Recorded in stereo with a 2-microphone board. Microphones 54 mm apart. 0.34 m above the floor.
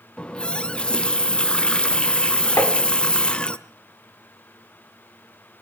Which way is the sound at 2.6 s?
60° left (ahead or behind).